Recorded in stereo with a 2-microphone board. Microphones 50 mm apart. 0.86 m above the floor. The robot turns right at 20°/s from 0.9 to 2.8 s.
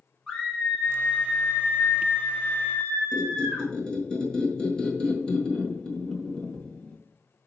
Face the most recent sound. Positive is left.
turn(degrees=20)  # may be behind; listen again after turning